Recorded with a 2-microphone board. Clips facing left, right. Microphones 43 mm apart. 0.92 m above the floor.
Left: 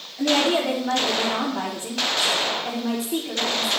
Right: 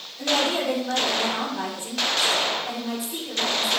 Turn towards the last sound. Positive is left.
turn(degrees=75)  # may be behind; listen again after turning